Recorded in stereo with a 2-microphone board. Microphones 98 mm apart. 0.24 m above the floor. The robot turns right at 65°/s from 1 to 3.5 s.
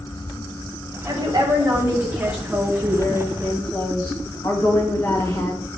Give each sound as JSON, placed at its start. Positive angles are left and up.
{"t": 1.1, "sound": "a woman speaking", "azimuth_deg": -95, "distance_m": 2.0}